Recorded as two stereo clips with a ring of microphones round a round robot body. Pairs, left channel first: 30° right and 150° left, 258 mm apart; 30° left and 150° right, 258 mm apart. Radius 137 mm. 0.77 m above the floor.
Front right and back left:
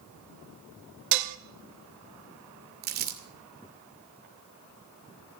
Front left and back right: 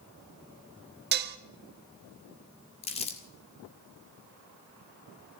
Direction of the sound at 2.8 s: 95° left.